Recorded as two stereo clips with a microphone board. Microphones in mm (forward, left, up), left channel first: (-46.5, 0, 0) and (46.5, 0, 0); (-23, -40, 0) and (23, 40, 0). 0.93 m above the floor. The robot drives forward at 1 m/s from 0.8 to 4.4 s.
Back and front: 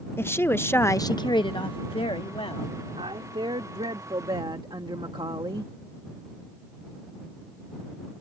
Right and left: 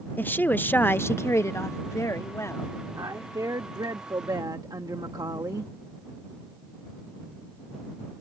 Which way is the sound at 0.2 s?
160° right.